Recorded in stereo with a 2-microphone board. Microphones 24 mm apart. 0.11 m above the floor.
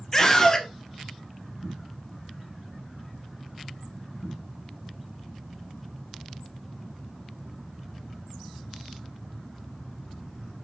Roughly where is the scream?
Centre.